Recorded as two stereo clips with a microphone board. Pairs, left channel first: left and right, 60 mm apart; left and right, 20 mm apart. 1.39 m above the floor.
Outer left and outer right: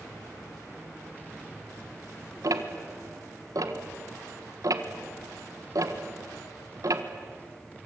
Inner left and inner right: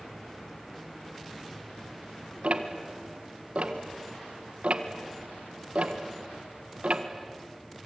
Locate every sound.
2.4 s ticking: 65° right (ahead or behind), 1.6 m